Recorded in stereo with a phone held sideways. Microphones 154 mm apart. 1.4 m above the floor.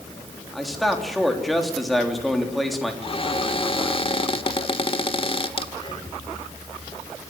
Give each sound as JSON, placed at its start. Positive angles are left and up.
{"t": 0.5, "sound": "a man speaking", "side_deg": 0, "distance_m": 3.5}
{"t": 3.0, "sound": "a cupboard door", "side_deg": 40, "distance_m": 1.2}
{"t": 5.7, "sound": "breathing", "side_deg": 30, "distance_m": 5.5}